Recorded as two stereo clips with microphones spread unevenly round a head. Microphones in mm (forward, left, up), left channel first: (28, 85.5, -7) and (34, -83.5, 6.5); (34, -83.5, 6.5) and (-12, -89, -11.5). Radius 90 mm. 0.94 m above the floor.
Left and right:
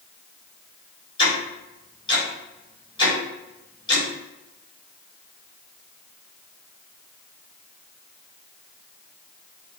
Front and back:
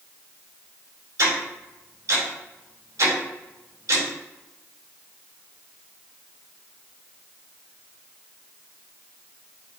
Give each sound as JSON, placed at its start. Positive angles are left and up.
{"t": 1.2, "sound": "ticking", "azimuth_deg": 160, "distance_m": 3.5}